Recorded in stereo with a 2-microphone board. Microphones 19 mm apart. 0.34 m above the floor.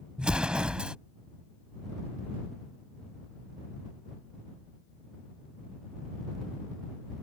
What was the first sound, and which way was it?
An explosion, 70° right (ahead or behind).